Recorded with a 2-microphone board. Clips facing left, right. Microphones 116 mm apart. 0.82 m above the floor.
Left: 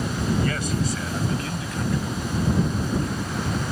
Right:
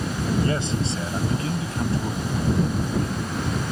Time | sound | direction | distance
0.4 | a man speaking | 25° right (ahead or behind) | ?